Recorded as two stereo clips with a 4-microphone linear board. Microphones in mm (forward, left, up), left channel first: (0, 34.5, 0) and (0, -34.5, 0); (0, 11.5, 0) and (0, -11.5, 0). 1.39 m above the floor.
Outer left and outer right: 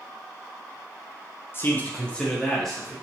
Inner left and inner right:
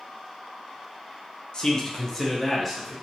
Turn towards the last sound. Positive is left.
turn(degrees=0)  # may be behind; listen again after turning